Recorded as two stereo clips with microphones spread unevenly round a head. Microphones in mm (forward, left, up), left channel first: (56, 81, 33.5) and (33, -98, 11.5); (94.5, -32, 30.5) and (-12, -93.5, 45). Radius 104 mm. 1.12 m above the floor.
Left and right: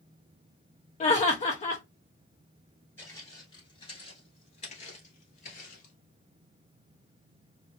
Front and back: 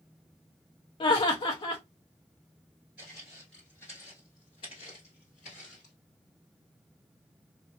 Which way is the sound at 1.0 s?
40° left.